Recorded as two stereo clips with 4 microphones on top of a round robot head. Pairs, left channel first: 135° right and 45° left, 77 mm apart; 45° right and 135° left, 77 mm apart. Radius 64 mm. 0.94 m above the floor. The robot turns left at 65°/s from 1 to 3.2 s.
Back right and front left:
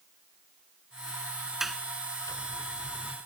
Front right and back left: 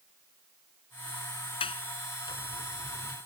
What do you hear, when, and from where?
1.6 s a sliding door: 40° right; by 3.2 s 140° right